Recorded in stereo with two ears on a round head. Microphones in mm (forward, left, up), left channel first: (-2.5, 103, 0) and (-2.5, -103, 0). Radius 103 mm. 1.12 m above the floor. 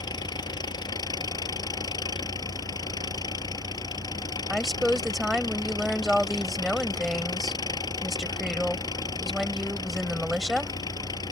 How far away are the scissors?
No scissors in this recording.